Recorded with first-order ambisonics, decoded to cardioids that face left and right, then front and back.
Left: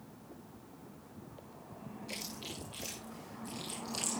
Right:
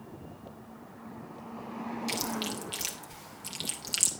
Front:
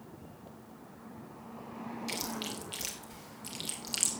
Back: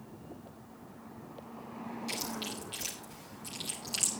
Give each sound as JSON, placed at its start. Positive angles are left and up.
{"t": 2.1, "sound": "chewing", "azimuth_deg": -80, "distance_m": 2.5}